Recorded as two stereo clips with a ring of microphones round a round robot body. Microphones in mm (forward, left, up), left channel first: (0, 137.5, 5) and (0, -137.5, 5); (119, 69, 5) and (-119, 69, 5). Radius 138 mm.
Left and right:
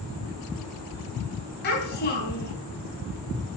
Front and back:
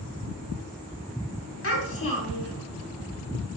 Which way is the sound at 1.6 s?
35° left.